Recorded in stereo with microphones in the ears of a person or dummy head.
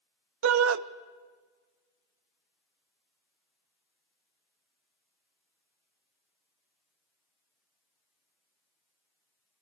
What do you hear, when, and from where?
0.4 s a shout: 80° right, 1.2 m